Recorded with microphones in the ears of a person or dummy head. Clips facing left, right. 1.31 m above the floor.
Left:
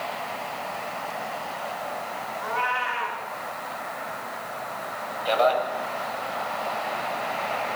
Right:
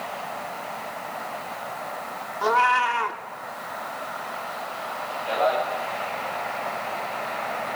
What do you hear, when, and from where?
2.4 s a cat meowing: 70° right (ahead or behind), 1.5 m
5.2 s a man speaking: 60° left (ahead or behind), 7 m